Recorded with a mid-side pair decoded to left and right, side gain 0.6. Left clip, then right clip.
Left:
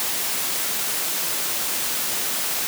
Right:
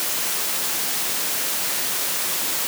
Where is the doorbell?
I don't hear a doorbell.